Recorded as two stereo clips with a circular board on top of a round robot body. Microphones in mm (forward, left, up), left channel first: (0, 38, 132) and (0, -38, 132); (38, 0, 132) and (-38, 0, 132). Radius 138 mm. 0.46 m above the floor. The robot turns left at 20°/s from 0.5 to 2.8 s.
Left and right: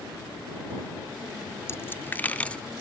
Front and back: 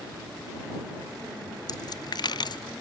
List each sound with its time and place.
1.7 s a dropped coin: 35° left; by 2.7 s 15° left